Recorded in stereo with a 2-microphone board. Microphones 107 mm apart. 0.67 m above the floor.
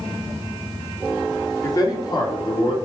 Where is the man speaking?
30° left (ahead or behind), 1.7 m; by 2.8 s 50° left (ahead or behind), 2 m.